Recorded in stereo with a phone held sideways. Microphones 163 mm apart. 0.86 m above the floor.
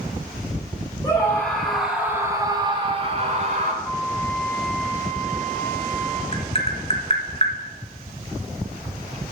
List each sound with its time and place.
1.0 s a scream: 25° left (ahead or behind), 2 m; by 3.7 s 50° right (ahead or behind), 3 m
3.8 s a flute: 15° left (ahead or behind), 2.5 m
6.3 s tapping: 40° left (ahead or behind), 1.9 m